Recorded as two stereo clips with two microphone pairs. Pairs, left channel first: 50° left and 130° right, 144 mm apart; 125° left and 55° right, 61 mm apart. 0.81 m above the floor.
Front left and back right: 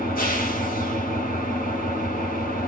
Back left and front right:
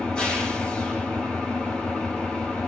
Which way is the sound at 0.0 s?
50° left.